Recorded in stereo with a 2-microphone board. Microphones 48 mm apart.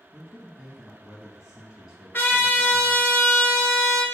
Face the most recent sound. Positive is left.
turn(degrees=45)  # may be behind; listen again after turning